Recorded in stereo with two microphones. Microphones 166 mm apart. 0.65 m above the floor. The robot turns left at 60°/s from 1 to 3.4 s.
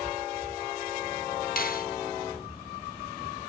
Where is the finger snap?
60° left (ahead or behind), 1.0 m.